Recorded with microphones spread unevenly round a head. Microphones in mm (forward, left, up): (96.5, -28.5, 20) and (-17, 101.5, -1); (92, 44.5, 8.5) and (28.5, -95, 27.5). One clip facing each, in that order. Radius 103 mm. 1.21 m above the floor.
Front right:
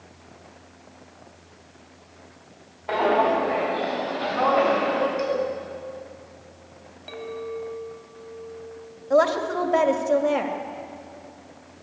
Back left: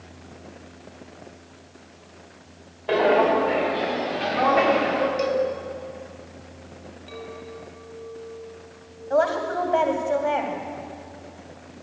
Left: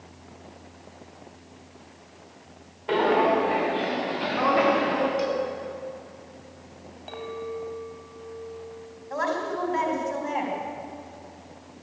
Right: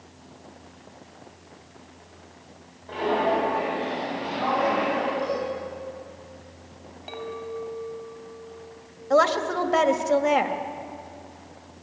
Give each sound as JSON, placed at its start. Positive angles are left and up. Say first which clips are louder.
{"t": 2.9, "sound": "footsteps", "louder": "back left 2 dB, left 3 dB", "azimuth_deg": 75, "distance_m": 6.0}
{"t": 5.2, "sound": "a cowbell", "louder": "back left 2 dB, left 1 dB", "azimuth_deg": 75, "distance_m": 5.5}
{"t": 7.1, "sound": "a clink", "louder": "front right 6 dB, even", "azimuth_deg": -30, "distance_m": 5.0}
{"t": 9.1, "sound": "a woman speaking", "louder": "front right 2 dB, right 7 dB", "azimuth_deg": -105, "distance_m": 2.0}